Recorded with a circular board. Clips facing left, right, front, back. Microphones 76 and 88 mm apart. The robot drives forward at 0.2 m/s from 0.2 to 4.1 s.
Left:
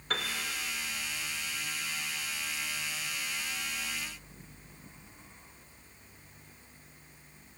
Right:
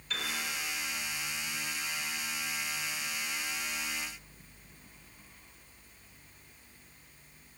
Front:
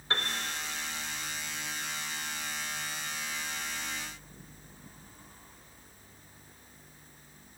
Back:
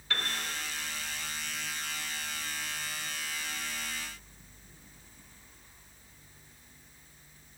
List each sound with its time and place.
0.1 s a piano: 60° left, 1.0 m